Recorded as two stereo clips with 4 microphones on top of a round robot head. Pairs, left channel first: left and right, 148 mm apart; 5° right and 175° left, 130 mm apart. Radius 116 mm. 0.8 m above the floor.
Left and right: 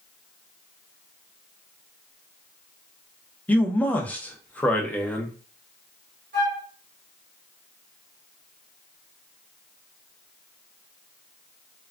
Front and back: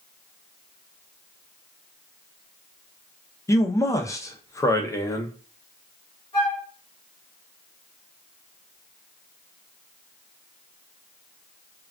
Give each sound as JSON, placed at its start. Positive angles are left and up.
{"t": 3.5, "sound": "a man speaking", "azimuth_deg": 25, "distance_m": 0.7}
{"t": 6.3, "sound": "a flute", "azimuth_deg": -65, "distance_m": 1.4}